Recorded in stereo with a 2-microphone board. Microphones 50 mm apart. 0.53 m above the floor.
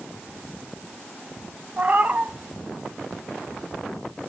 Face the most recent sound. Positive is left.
turn(degrees=-35)  # may be behind; listen again after turning